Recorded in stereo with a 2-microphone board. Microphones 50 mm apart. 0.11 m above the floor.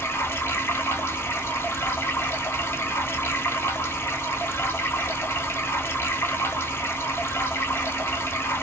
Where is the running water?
55° left (ahead or behind), 1.1 m.